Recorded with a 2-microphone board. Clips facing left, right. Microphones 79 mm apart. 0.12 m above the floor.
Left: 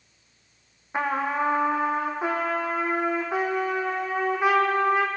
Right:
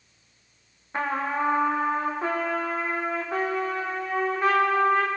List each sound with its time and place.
0.9 s a trumpet: 10° left (ahead or behind), 1.2 m